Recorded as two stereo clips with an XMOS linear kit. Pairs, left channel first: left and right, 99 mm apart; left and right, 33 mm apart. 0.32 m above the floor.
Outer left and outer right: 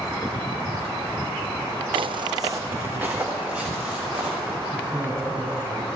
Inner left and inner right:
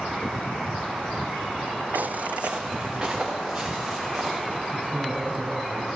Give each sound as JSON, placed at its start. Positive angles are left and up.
{"t": 1.9, "sound": "footsteps", "side_deg": -60, "distance_m": 0.6}
{"t": 4.7, "sound": "a man speaking", "side_deg": -40, "distance_m": 3.0}